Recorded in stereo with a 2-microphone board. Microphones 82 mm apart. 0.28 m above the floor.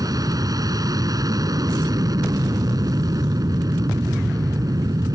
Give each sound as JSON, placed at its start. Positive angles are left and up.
{"t": 0.0, "sound": "an aircraft", "side_deg": -50}